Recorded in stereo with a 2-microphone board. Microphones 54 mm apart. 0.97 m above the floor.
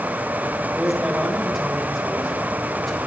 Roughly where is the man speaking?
Centre.